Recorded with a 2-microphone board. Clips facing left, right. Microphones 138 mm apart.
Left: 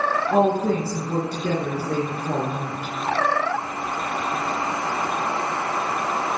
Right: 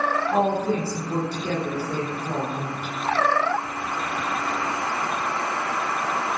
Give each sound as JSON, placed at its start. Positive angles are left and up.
{"t": 0.3, "sound": "a woman speaking", "side_deg": 60, "distance_m": 3.0}